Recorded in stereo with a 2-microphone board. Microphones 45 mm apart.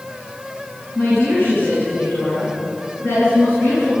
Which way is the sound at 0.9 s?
55° left (ahead or behind).